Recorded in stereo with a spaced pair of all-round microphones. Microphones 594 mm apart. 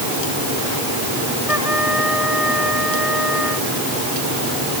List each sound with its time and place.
1.5 s a trumpet: 60° left (ahead or behind)